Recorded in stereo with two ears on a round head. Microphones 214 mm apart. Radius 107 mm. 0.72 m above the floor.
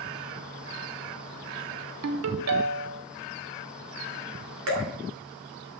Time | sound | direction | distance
2.0 | a ringtone | 70° right (ahead or behind) | 0.8 m
4.7 | dripping | 60° right (ahead or behind) | 2 m